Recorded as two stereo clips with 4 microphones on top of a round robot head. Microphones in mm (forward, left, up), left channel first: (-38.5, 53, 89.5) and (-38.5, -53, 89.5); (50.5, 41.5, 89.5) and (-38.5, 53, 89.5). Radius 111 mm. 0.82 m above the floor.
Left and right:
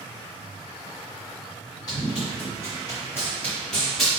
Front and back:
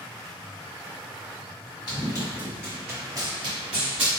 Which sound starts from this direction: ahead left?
Running footsteps, at 1.9 s.